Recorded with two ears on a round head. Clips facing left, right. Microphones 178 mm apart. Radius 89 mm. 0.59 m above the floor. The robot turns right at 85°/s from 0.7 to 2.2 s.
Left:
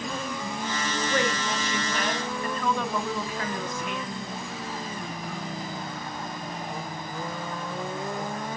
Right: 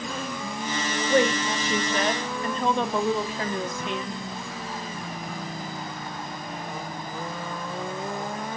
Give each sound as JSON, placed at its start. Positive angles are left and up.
{"t": 1.1, "sound": "a woman speaking", "azimuth_deg": -140, "distance_m": 0.9}